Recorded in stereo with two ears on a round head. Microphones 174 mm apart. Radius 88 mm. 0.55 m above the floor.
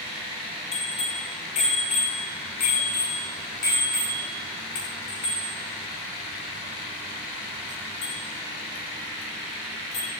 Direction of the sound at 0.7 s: 35° left (ahead or behind).